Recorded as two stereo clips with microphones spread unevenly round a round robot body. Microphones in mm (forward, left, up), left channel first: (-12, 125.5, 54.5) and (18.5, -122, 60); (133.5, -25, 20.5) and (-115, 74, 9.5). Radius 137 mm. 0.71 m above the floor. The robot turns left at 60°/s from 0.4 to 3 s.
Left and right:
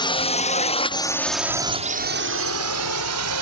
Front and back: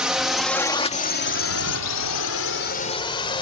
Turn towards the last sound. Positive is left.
turn(degrees=-95)